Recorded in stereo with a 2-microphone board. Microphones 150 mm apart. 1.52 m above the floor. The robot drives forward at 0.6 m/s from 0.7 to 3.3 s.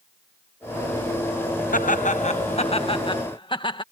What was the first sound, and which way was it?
Laughter, 65° left (ahead or behind).